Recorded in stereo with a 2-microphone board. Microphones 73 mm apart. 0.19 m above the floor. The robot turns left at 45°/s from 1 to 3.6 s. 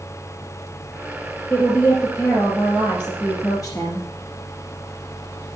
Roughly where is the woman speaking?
Behind.